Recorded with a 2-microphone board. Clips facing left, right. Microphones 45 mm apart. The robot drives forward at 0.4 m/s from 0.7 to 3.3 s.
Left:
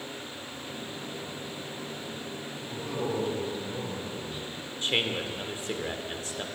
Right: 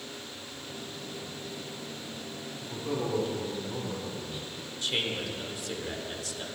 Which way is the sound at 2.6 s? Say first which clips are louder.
Right 1 dB; centre (ahead or behind).